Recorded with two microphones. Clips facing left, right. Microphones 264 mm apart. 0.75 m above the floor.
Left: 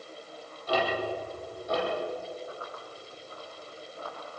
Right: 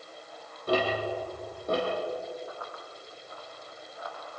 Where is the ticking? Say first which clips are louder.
Right 2 dB; 55° right (ahead or behind), 10 m.